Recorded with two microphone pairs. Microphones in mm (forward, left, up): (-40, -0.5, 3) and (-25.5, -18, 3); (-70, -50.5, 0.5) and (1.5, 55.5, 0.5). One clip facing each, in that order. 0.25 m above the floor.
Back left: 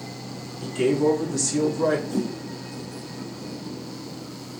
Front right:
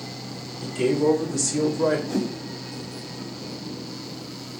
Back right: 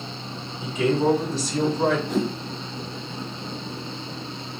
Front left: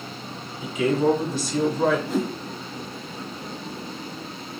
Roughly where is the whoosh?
Ahead right.